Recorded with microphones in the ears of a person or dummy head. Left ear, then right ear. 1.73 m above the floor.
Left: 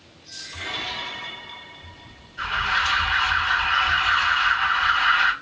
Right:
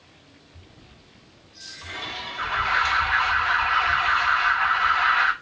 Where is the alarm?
40° right (ahead or behind), 3.5 m.